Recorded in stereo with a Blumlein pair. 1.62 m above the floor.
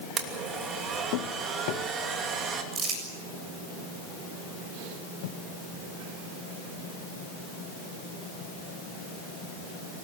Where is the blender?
25° right, 3 m.